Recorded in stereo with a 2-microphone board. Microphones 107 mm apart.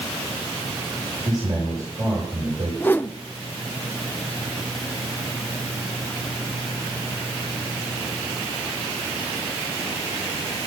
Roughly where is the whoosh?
Centre.